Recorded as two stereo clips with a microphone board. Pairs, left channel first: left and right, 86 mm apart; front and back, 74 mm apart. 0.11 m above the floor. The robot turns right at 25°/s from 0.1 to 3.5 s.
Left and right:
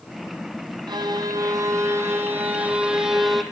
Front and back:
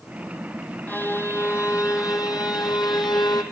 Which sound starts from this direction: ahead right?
A violin, at 0.9 s.